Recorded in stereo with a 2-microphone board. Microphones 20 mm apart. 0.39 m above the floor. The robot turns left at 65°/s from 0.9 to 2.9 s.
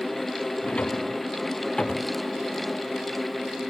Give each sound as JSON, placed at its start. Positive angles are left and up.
{"t": 0.6, "sound": "a drawer", "side_deg": 85}